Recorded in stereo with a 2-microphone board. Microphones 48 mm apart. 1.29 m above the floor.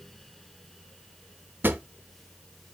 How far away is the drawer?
About 0.8 m.